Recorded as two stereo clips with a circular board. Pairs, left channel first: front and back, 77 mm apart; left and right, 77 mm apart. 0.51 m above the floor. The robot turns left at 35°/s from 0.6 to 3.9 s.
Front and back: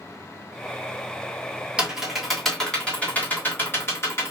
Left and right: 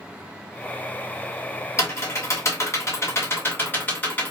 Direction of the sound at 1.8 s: 110° left.